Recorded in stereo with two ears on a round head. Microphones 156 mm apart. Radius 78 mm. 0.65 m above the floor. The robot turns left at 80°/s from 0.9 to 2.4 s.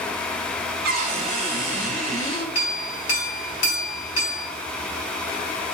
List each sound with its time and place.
0.8 s a cupboard door: 120° right, 1.5 m; by 2.5 s 120° left, 1.5 m
2.5 s a clink: 75° left (ahead or behind), 2 m